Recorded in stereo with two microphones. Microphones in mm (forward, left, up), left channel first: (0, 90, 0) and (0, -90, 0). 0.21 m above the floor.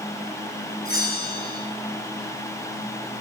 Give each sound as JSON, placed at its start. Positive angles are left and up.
{"t": 0.8, "sound": "a bell", "side_deg": 55, "distance_m": 3.0}